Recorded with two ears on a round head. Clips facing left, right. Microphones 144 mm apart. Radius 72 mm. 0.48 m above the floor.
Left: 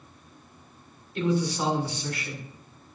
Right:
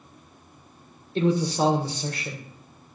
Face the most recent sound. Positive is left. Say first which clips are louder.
# right 4 dB
turn(degrees=-30)  # may be behind; listen again after turning